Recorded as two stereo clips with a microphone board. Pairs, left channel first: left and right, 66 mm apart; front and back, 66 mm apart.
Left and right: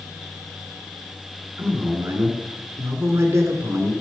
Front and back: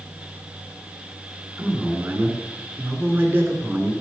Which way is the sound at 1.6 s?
120° right.